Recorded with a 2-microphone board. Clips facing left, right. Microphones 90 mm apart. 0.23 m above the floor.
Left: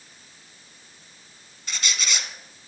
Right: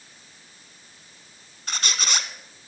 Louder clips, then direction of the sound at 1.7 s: Right 1 dB; 50° right (ahead or behind).